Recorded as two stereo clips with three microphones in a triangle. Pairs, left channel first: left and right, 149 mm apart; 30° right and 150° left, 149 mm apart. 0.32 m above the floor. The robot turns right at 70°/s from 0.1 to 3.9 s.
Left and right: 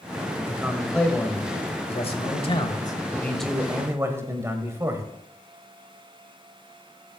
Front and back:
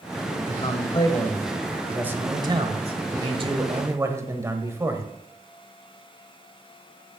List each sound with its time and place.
0.4 s a man speaking: 35° right, 1.1 m; by 5.1 s 150° right, 1.1 m